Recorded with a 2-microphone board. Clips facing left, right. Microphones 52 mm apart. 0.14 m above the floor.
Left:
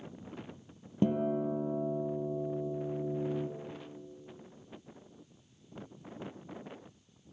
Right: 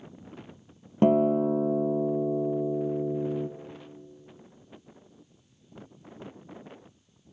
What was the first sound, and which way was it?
A guitar, 65° right (ahead or behind).